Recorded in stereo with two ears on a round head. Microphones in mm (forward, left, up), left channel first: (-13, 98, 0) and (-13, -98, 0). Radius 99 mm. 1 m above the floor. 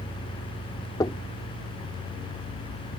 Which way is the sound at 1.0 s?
15° left (ahead or behind).